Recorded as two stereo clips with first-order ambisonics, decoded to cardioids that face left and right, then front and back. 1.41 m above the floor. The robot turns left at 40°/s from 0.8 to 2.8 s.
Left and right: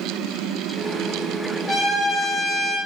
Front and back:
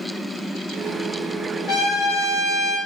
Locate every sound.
1.7 s a trumpet: 35° left, 1.4 m; by 2.8 s 10° right, 1.4 m